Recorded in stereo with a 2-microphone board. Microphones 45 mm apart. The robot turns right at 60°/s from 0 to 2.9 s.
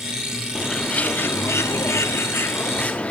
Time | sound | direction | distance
0.6 | a bird | 10° left | 0.5 m